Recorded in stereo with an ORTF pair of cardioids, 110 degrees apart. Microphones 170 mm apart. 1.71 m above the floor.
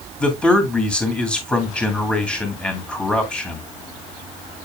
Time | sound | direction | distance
0.2 | a man speaking | 5° left | 2.5 m